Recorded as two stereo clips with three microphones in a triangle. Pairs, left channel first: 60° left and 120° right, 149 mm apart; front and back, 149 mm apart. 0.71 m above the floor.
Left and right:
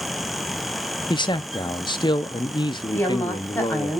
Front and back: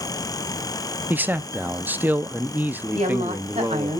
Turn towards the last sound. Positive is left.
turn(degrees=135)